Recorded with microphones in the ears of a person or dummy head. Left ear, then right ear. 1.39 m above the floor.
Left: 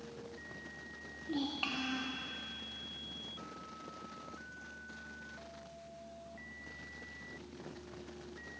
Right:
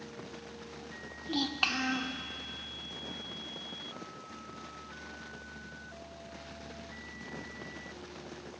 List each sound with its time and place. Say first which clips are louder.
1.2 s a child speaking: right 7 dB; 35° right (ahead or behind), 0.9 m